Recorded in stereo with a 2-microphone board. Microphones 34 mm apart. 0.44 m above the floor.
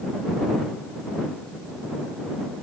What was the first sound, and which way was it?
Only background noise.